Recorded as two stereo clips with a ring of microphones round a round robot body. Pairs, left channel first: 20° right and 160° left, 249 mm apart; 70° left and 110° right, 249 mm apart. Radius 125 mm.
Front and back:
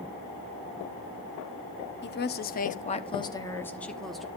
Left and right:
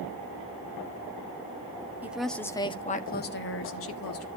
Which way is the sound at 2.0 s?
35° right.